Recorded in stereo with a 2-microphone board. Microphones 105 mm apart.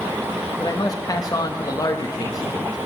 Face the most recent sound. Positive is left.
turn(degrees=35)  # may be behind; listen again after turning